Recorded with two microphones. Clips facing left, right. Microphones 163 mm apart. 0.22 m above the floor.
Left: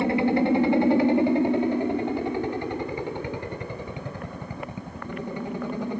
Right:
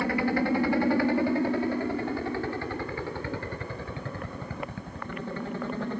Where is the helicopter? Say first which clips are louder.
Left 5 dB; 20° left (ahead or behind); by 6.0 s 15° left (ahead or behind).